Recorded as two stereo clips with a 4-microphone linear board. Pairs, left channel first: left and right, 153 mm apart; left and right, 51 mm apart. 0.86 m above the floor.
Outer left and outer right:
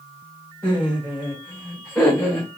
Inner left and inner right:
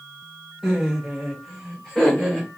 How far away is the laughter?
About 3 m.